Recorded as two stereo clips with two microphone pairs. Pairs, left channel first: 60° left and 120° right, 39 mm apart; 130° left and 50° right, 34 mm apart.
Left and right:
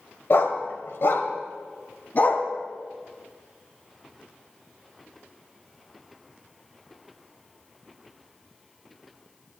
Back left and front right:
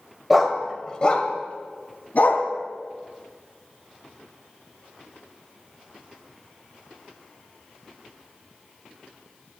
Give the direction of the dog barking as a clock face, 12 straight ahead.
11 o'clock.